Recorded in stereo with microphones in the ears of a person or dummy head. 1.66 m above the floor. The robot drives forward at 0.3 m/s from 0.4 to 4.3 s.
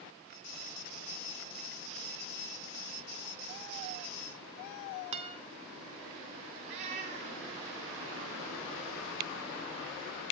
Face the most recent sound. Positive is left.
turn(degrees=-25)  # may be behind; listen again after turning